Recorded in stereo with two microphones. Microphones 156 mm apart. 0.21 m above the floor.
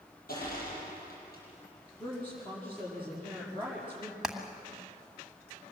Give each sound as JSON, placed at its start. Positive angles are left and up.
{"t": 0.3, "sound": "crushing", "side_deg": 75, "distance_m": 7.5}
{"t": 2.0, "sound": "a woman speaking", "side_deg": 15, "distance_m": 6.0}
{"t": 4.2, "sound": "hammering", "side_deg": -5, "distance_m": 1.5}